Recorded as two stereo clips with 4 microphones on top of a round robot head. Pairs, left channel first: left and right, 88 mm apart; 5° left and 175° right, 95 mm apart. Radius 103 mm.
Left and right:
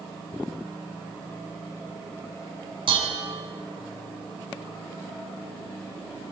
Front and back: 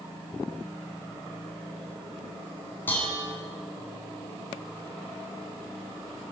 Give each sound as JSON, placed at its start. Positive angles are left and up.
{"t": 2.9, "sound": "dishes clattering", "azimuth_deg": -70, "distance_m": 5.0}